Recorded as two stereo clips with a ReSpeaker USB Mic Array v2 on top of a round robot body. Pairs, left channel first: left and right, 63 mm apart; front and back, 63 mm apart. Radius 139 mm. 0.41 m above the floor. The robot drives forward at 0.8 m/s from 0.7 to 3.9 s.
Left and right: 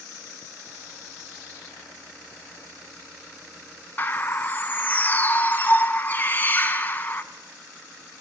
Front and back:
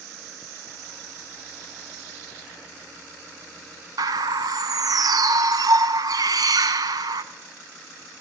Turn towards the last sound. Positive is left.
turn(degrees=155)